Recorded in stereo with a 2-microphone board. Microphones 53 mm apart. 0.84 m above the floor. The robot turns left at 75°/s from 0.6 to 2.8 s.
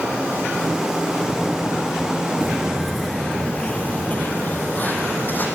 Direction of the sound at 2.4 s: 30° right (ahead or behind).